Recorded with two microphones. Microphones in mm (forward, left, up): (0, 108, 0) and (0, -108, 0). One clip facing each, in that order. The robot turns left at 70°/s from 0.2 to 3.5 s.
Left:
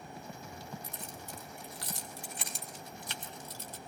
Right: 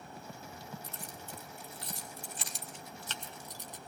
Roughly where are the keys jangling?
Centre.